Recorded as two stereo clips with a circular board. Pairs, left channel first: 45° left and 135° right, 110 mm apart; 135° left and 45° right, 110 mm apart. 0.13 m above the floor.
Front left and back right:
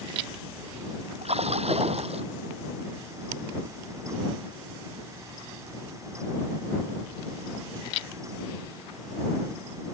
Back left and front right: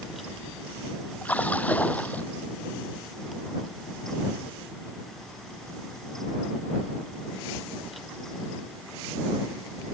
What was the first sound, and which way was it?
A splash, 150° right.